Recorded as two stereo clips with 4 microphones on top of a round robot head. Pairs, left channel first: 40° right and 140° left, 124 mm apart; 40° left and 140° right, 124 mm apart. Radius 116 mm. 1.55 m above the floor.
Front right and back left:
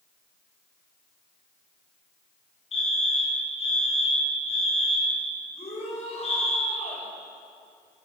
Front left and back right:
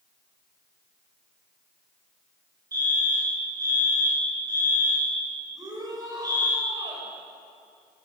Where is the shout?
80° right, 8 m.